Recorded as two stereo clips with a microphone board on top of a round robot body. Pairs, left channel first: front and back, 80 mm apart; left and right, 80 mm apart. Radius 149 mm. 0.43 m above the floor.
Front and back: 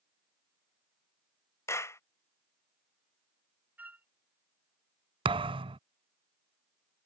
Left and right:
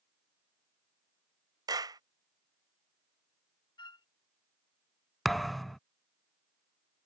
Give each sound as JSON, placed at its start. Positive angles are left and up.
{"t": 1.7, "sound": "a clap", "azimuth_deg": -55}
{"t": 3.8, "sound": "a flute", "azimuth_deg": 110}
{"t": 5.2, "sound": "a thud", "azimuth_deg": 180}